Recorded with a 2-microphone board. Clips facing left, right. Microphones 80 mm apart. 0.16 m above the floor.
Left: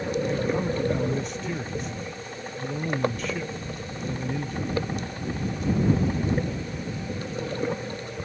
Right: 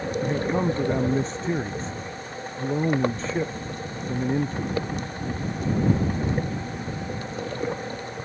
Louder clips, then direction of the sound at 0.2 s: Right 4 dB; 35° right (ahead or behind).